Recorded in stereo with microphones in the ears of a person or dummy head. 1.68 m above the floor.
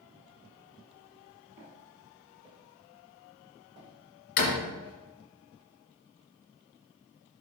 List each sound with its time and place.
1.6 s footsteps: 55° right (ahead or behind), 2.5 m; by 5.0 s 40° right (ahead or behind), 4.5 m
4.4 s a door slam: 55° left (ahead or behind), 1.5 m